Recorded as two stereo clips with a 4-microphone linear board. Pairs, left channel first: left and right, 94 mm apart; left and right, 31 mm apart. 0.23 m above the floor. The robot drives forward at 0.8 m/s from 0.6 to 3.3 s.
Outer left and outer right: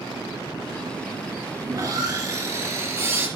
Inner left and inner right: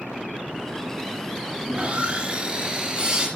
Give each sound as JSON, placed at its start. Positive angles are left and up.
{"t": 1.7, "sound": "sawing", "side_deg": -45, "distance_m": 2.5}